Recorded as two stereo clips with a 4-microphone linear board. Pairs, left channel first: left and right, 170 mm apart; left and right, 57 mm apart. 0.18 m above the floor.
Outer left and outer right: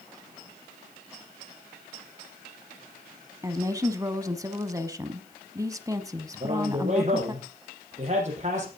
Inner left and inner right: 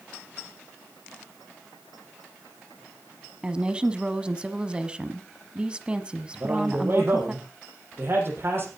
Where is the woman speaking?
20° right (ahead or behind), 1.0 m.